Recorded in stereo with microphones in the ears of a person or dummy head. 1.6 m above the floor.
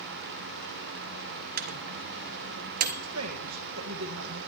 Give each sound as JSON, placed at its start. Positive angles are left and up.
{"t": 1.6, "sound": "a microwave", "side_deg": -50, "distance_m": 0.8}
{"t": 3.0, "sound": "a woman speaking", "side_deg": -80, "distance_m": 1.6}